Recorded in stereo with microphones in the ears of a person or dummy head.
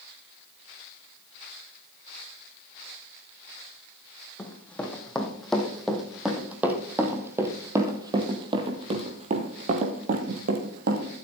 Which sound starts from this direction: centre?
Running footsteps, at 4.4 s.